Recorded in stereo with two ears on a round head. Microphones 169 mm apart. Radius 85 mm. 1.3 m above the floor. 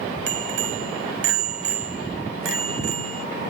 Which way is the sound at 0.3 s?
65° right (ahead or behind).